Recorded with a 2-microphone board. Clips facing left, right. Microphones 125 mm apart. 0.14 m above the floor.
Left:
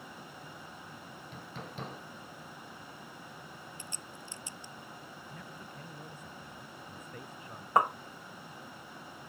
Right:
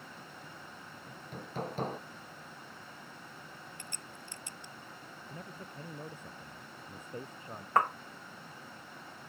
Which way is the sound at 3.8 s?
60° right (ahead or behind).